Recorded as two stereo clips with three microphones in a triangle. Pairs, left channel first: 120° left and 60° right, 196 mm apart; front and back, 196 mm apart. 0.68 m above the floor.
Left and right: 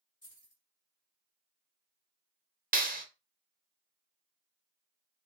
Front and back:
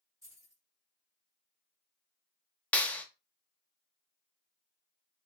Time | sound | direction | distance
0.2 | keys jangling | 105° left | 2 m
2.7 | a clap | 80° right | 0.6 m